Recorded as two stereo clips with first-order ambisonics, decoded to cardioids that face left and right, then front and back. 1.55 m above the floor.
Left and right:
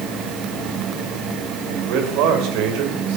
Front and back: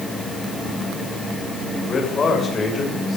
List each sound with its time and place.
1.7 s a man speaking: 70° right, 7 m; by 3.2 s 75° right, 6.5 m